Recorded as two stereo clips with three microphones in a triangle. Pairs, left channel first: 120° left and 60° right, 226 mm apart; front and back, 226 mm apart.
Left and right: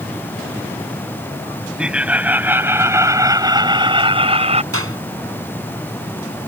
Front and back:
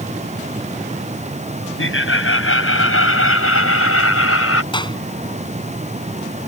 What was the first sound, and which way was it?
Laughter, 25° left.